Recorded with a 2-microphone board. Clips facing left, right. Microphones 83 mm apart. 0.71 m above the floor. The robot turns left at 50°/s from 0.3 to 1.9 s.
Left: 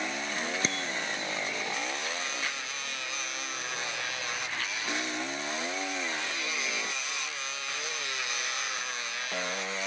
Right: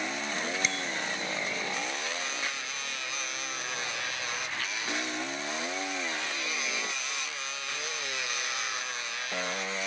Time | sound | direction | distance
0.6 | a bicycle bell | 40° left (ahead or behind) | ?